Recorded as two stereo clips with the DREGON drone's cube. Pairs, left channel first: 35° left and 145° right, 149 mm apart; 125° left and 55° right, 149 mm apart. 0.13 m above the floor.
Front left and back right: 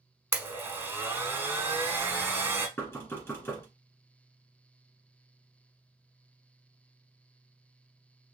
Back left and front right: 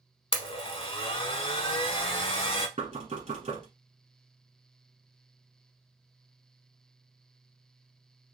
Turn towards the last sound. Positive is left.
turn(degrees=-35)